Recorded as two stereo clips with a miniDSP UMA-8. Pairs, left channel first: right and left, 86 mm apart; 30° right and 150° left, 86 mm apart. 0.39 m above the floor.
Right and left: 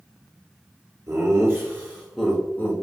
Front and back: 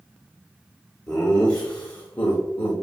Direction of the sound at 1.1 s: 45° left.